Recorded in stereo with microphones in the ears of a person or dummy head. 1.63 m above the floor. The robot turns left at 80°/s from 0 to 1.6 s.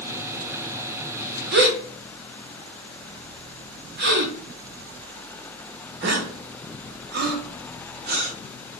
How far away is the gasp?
About 0.7 m.